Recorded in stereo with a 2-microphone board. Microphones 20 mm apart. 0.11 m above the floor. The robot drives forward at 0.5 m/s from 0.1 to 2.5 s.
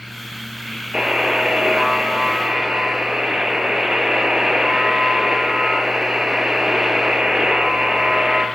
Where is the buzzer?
50° right (ahead or behind), 3.5 m; by 8.5 s 55° right (ahead or behind), 3.5 m.